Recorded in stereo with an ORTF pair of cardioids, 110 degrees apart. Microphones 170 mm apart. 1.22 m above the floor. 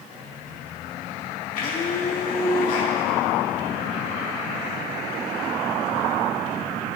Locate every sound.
1.6 s a blender: 55° left, 2 m